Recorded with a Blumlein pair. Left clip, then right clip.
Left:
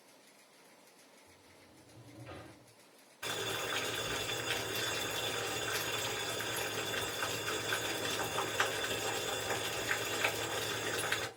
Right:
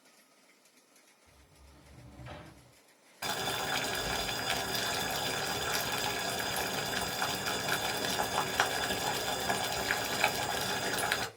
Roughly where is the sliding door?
Ahead right.